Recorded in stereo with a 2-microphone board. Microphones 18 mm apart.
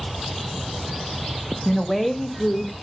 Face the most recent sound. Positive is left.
turn(degrees=55)  # may be behind; listen again after turning